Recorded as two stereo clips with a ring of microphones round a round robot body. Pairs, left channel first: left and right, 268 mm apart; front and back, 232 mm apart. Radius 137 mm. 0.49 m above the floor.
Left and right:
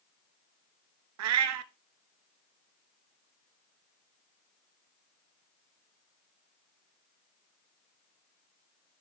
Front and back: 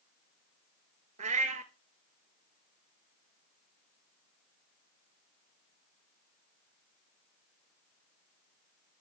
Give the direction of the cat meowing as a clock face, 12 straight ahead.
4 o'clock.